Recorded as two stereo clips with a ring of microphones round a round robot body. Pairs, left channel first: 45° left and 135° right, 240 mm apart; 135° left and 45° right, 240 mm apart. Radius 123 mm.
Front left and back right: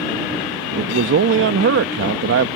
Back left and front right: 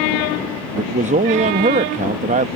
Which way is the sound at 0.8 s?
100° right.